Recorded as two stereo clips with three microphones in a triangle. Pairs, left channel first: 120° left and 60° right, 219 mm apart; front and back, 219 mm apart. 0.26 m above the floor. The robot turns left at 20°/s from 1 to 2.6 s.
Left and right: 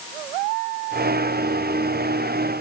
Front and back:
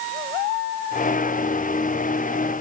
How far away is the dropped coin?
No dropped coin in this recording.